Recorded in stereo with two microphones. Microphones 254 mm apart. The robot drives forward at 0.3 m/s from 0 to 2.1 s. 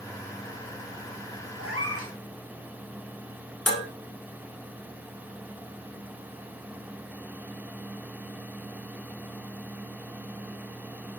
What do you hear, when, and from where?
1.6 s a cat meowing: 55° right (ahead or behind), 3 m
3.7 s dishes clattering: 70° left (ahead or behind), 2.5 m